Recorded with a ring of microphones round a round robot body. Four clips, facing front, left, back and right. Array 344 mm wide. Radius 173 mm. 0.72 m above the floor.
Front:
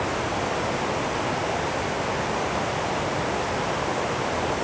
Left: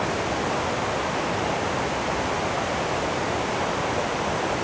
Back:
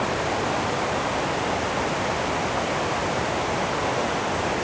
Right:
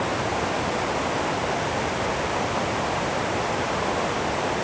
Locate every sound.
Only background noise.